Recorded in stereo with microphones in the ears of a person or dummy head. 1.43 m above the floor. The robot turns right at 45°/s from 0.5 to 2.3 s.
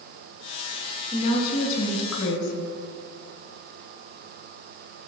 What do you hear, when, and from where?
1.1 s a woman speaking: 40° left, 2 m; by 2.7 s 95° left, 2 m